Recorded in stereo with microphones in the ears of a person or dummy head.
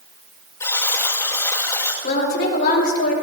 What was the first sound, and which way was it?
A buzzer, 15° left (ahead or behind).